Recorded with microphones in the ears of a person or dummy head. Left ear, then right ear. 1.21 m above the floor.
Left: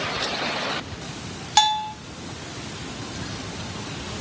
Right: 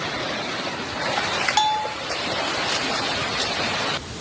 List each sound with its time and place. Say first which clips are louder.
1.6 s a bell: left 5 dB; 5° left (ahead or behind), 0.6 m